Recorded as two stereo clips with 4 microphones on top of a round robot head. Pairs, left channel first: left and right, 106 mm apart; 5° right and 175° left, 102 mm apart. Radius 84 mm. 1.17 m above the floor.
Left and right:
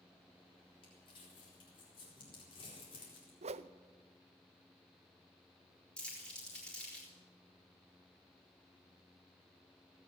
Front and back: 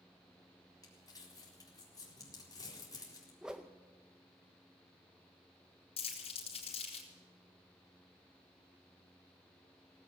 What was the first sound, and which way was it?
Crumpling, 45° left.